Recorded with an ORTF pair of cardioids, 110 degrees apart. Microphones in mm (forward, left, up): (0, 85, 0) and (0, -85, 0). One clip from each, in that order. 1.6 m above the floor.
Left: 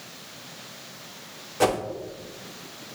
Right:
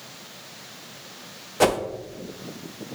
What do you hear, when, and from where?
1.6 s a whoosh: 20° right, 0.6 m